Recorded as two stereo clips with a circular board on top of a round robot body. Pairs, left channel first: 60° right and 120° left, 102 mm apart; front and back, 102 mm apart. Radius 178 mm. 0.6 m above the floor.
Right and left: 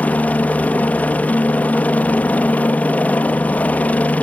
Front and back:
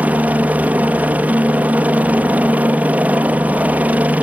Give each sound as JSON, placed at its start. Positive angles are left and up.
{"t": 0.0, "sound": "a helicopter", "azimuth_deg": -120}